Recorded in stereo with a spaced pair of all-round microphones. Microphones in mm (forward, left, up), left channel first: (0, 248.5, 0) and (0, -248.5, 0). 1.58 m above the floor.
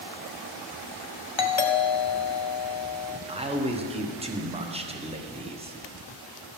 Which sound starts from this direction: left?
A doorbell, at 1.4 s.